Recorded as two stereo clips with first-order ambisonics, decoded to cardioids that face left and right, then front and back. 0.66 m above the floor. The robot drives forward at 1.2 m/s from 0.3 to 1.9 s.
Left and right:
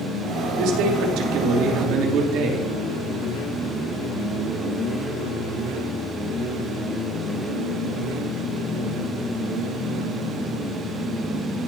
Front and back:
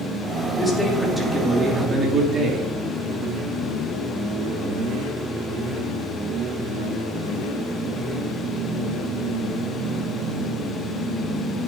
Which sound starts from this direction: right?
A man speaking, at 0.6 s.